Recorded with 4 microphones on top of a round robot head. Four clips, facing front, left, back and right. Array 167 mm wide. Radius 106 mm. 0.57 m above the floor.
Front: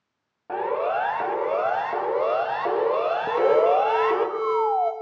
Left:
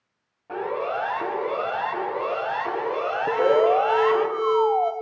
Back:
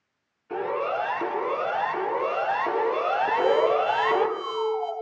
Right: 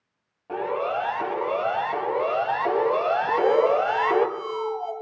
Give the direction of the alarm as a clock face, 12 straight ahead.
11 o'clock.